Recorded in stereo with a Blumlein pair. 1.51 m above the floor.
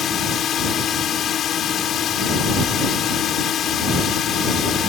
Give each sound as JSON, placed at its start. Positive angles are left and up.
{"t": 0.0, "sound": "a drone", "azimuth_deg": 30}